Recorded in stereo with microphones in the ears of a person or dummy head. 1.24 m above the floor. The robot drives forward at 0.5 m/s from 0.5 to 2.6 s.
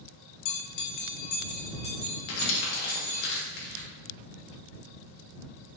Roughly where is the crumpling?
Left.